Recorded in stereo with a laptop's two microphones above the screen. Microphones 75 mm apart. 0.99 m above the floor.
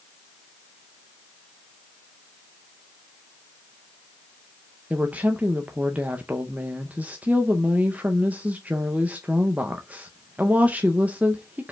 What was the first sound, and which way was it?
A woman speaking, 20° right (ahead or behind).